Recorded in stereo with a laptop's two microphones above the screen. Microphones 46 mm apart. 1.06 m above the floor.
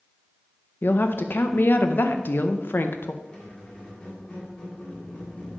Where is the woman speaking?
50° left (ahead or behind), 0.5 m.